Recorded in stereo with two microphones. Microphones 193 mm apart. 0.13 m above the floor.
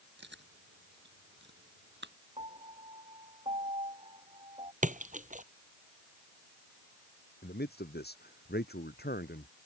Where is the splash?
40° right (ahead or behind).